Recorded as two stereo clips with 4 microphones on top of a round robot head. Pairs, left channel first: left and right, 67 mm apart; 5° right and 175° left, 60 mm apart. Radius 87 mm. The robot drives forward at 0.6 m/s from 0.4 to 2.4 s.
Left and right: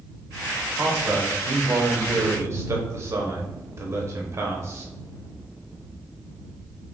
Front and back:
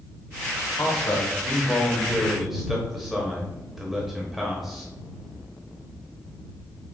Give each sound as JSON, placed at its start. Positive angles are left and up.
{"t": 0.7, "sound": "a man speaking", "azimuth_deg": -35, "distance_m": 1.3}